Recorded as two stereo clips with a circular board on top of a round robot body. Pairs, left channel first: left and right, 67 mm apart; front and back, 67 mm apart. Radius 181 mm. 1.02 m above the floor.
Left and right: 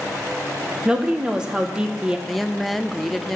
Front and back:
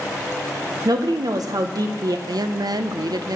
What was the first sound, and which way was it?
A woman speaking, 165° right.